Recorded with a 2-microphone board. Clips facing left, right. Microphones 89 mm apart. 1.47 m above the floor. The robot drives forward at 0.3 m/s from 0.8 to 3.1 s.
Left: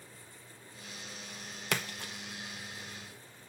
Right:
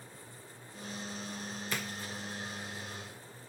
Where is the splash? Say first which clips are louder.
Left 5 dB; 75° left (ahead or behind), 1.3 m.